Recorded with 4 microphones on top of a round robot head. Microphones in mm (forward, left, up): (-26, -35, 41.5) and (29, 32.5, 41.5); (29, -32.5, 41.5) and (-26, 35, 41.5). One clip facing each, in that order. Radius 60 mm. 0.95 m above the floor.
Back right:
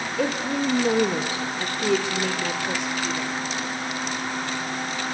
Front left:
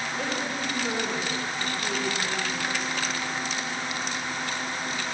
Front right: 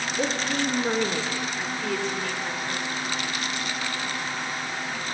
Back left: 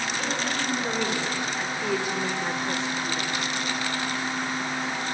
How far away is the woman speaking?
About 3 m.